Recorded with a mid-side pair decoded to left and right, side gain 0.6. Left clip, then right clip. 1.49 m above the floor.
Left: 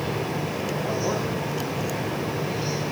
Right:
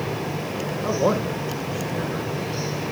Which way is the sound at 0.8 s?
70° right.